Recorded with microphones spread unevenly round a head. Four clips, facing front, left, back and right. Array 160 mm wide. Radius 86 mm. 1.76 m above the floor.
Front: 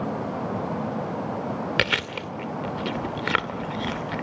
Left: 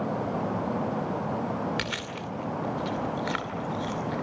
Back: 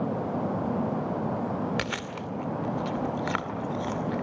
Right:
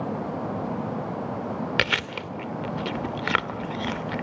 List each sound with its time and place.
1.8 s chewing: 45° right, 2.5 m